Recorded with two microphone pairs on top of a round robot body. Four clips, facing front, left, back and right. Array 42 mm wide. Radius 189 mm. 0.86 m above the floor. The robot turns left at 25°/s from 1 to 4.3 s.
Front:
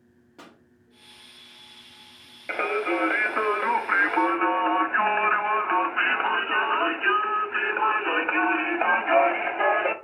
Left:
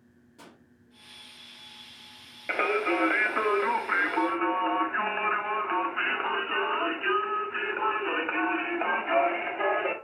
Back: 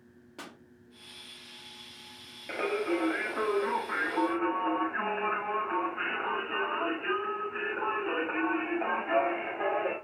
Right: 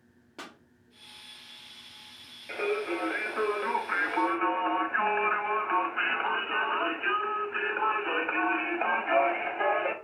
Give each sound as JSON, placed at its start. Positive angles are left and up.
{"t": 0.4, "sound": "a pop", "azimuth_deg": -125, "distance_m": 1.5}
{"t": 2.5, "sound": "singing", "azimuth_deg": 55, "distance_m": 1.5}